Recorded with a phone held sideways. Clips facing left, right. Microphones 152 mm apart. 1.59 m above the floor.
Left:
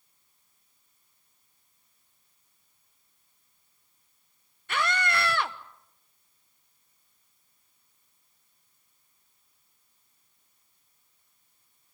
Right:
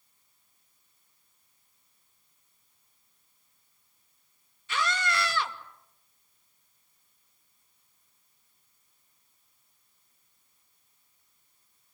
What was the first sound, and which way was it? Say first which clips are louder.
A scream: left 2 dB; 60° left (ahead or behind).